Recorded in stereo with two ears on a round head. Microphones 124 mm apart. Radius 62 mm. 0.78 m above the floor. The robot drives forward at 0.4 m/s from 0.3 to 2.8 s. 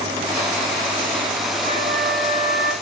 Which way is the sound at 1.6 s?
60° right (ahead or behind).